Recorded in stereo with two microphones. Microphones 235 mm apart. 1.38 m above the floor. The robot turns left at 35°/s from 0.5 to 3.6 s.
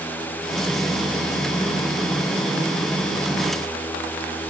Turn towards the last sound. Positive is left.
No sound to turn to.